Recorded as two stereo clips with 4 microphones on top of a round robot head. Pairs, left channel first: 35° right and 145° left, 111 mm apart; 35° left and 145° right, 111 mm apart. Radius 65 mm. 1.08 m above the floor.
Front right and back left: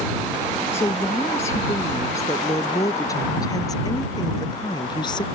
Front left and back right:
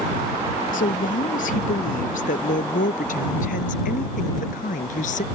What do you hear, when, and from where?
0.7 s a woman speaking: 35° left; by 5.3 s 20° left